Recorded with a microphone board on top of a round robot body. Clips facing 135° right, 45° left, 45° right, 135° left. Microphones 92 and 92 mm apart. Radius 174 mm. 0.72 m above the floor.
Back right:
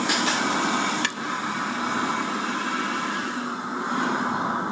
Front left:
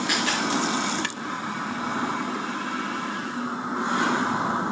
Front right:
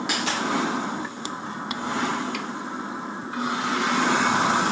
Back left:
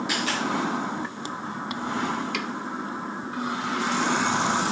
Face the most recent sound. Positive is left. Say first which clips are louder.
# back right 2 dB, front right 1 dB
turn(degrees=-70)